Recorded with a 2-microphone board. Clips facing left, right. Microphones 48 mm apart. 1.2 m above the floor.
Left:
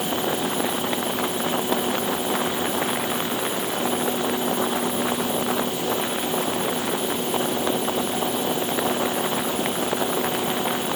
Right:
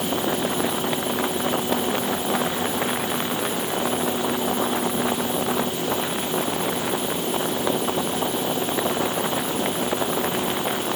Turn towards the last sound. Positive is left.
No sound to turn to.